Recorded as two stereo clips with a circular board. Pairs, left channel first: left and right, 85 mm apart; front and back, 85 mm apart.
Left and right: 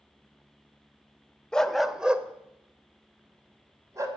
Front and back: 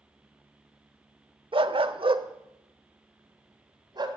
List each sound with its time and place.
1.5 s a dog barking: 170° left, 0.7 m; by 4.1 s 140° right, 1.9 m